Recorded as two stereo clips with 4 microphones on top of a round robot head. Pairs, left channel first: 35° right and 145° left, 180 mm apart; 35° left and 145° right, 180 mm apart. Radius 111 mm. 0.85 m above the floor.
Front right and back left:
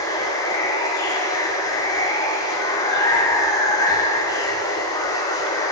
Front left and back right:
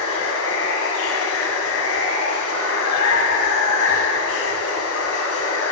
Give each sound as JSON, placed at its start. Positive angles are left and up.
{"t": 0.0, "sound": "running water", "azimuth_deg": 35, "distance_m": 1.1}